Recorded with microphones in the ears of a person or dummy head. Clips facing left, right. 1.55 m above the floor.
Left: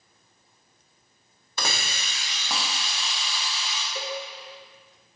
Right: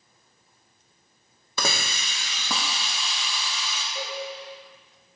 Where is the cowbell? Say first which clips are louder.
Left 2 dB; 75° left (ahead or behind), 1.2 m.